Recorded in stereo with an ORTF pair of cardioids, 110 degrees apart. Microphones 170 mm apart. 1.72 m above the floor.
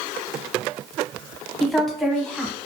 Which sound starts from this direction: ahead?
A woman speaking, at 1.6 s.